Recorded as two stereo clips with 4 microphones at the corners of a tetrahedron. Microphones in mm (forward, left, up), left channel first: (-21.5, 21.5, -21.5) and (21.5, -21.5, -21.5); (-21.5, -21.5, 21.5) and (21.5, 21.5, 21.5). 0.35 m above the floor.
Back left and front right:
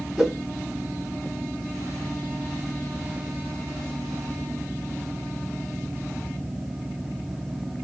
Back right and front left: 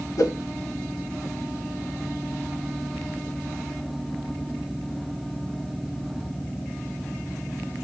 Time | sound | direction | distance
0.2 | a whoosh | 130° right | 0.7 m